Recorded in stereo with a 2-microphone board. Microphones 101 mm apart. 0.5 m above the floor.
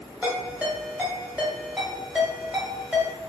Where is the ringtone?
10° right (ahead or behind), 0.9 m.